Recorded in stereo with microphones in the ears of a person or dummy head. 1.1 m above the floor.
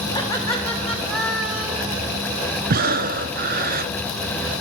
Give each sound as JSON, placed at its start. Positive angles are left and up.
{"t": 0.1, "sound": "laughter", "side_deg": 20, "distance_m": 1.6}
{"t": 2.7, "sound": "breathing", "side_deg": -40, "distance_m": 0.5}